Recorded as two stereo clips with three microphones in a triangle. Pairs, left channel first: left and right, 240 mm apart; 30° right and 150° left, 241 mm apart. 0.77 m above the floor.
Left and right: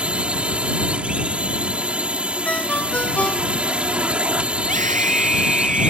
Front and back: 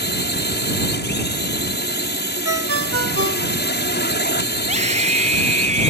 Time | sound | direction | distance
0.0 | a drone | 5° right | ?
2.5 | a ringtone | 175° left | ?
4.6 | a scream | 150° right | ?